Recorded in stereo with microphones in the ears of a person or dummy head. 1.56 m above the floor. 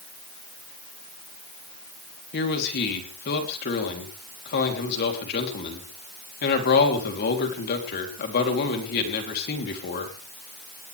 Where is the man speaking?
60° left (ahead or behind), 3.5 m.